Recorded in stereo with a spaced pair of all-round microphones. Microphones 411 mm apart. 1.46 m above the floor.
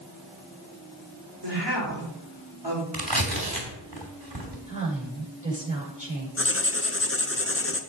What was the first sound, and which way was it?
A woman speaking, 75° right (ahead or behind).